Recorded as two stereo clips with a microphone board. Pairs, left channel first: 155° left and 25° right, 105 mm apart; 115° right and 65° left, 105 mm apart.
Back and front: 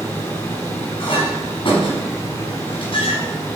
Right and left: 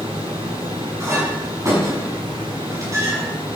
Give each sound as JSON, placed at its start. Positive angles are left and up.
{"t": 0.0, "sound": "running water", "azimuth_deg": 100, "distance_m": 4.0}
{"t": 1.0, "sound": "a clink", "azimuth_deg": 125, "distance_m": 5.5}